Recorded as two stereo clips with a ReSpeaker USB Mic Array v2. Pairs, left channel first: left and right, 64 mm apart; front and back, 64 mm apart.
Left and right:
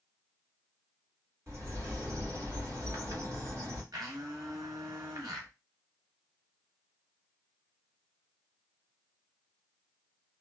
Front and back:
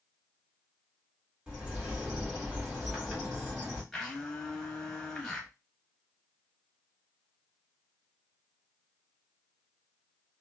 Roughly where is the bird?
Right.